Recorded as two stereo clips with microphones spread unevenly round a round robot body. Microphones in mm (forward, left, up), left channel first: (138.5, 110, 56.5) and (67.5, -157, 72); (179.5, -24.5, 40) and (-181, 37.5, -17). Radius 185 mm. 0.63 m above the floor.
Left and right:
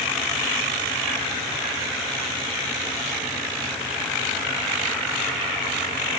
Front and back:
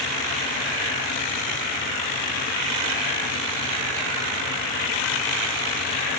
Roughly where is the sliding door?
I don't hear a sliding door.